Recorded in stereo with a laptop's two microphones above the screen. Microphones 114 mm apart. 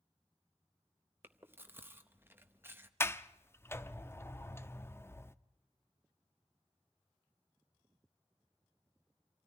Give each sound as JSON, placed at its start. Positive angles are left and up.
{"t": 1.2, "sound": "chewing", "side_deg": -20, "distance_m": 0.7}
{"t": 3.0, "sound": "a sliding door", "side_deg": 20, "distance_m": 0.6}